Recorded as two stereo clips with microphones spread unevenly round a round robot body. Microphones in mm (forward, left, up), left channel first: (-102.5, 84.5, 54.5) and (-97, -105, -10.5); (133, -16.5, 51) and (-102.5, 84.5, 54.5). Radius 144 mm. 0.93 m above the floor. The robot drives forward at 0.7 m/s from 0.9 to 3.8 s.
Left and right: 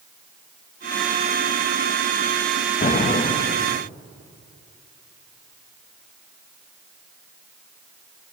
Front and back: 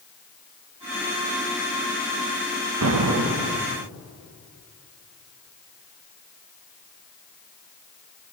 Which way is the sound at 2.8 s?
145° left.